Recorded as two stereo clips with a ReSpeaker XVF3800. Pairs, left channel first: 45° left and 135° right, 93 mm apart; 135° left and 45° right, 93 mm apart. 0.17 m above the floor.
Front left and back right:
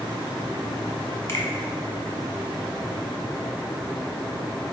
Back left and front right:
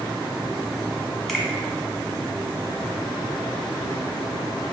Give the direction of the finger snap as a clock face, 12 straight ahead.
10 o'clock.